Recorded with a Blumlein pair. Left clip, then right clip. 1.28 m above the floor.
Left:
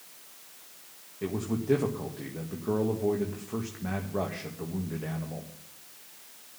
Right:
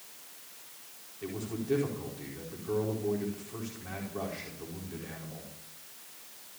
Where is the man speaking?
35° left, 2.0 m.